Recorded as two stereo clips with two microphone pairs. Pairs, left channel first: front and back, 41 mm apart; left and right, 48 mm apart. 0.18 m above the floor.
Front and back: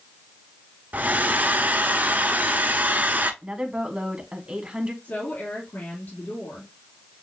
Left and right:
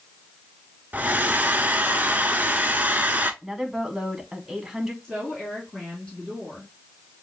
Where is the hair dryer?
140° right, 0.6 m.